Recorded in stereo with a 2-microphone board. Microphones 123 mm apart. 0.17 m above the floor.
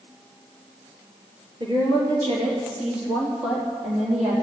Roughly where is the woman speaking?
Right.